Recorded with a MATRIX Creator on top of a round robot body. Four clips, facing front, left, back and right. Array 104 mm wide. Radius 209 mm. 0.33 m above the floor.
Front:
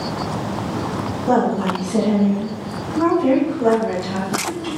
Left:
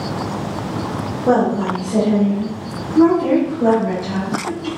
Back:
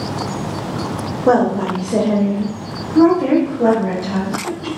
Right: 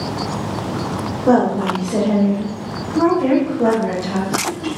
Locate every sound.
1.3 s a woman speaking: 175° right, 3 m; by 4.7 s 130° right, 3.5 m